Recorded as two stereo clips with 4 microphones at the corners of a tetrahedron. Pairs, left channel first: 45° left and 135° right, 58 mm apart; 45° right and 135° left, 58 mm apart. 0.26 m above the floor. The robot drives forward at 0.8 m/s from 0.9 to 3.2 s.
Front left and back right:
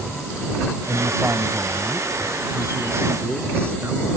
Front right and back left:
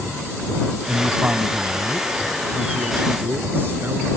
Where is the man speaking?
165° right; by 4.1 s 175° right.